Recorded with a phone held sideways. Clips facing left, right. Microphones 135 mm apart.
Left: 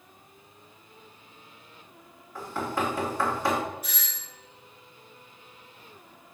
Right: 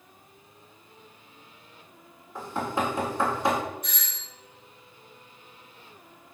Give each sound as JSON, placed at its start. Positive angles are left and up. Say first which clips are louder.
{"t": 2.4, "sound": "knocking", "louder": "right 1 dB", "side_deg": -20, "distance_m": 2.0}
{"t": 3.8, "sound": "a doorbell", "louder": "even", "side_deg": 5, "distance_m": 1.1}